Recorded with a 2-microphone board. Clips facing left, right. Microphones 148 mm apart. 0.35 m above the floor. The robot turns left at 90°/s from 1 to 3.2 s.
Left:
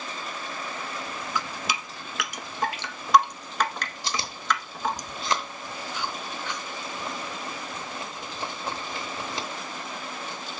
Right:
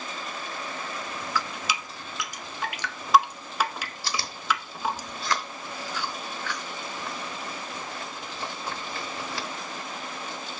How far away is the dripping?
About 0.8 m.